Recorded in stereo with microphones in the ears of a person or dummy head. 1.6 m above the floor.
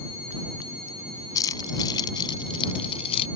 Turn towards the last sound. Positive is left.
turn(degrees=30)  # may be behind; listen again after turning